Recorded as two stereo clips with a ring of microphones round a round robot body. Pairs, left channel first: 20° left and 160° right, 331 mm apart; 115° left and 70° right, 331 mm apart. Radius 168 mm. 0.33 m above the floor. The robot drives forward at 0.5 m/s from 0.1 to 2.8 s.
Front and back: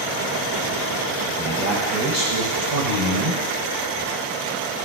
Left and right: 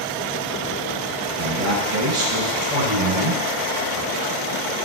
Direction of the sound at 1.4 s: 100° right.